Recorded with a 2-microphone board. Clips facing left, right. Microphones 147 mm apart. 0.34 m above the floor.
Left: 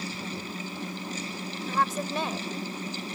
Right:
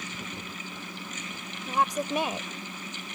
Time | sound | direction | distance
1.7 | a woman speaking | 15° right (ahead or behind) | ?